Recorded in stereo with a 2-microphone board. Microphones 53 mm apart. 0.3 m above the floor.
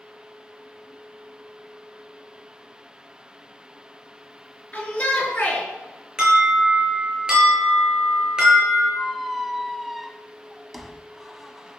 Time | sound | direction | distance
4.7 | a shout | 25° left (ahead or behind) | 5.5 m
6.2 | an alarm | 15° right (ahead or behind) | 6 m
9.0 | a squeak | centre (ahead or behind) | 1.2 m